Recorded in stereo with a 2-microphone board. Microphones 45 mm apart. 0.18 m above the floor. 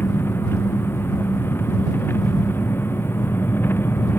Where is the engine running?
60° left (ahead or behind).